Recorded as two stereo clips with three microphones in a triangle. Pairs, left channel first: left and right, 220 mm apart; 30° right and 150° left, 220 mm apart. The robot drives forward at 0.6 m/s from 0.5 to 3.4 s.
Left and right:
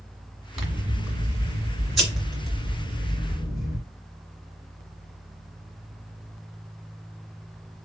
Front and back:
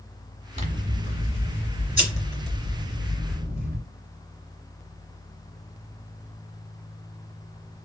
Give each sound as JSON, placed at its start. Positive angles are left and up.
{"t": 0.6, "sound": "scissors", "azimuth_deg": -175, "distance_m": 1.6}